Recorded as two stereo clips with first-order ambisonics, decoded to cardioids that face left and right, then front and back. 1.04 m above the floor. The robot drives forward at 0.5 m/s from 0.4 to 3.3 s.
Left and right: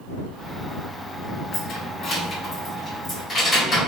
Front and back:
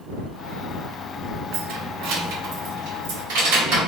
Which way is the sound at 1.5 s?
140° left.